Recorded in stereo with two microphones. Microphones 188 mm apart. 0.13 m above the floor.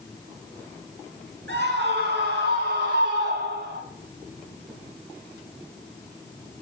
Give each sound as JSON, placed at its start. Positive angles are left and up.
{"t": 1.5, "sound": "a scream", "side_deg": -70, "distance_m": 6.0}